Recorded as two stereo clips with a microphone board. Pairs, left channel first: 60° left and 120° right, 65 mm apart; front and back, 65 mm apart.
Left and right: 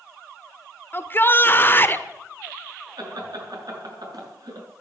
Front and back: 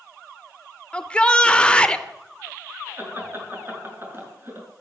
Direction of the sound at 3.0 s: 125° right.